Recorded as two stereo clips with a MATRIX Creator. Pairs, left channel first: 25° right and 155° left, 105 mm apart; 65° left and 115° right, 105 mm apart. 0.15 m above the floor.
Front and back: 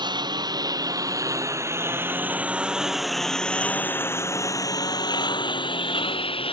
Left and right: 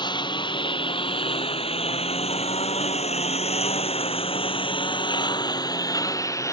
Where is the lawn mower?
110° left; by 6.5 s 10° left.